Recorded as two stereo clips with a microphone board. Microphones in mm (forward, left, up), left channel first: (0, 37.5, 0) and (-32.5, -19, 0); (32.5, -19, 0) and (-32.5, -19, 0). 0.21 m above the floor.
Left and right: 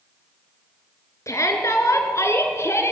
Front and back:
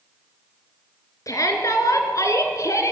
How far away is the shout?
About 3.5 m.